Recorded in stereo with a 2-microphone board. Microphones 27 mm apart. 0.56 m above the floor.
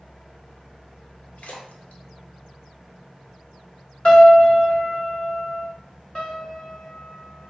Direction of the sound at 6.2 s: 30° left (ahead or behind).